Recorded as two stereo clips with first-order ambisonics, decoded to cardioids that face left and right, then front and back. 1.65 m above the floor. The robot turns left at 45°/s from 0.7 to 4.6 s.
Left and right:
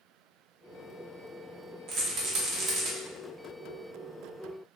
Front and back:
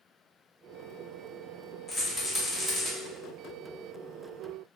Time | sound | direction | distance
1.9 | a rattle | 80° right | 0.9 m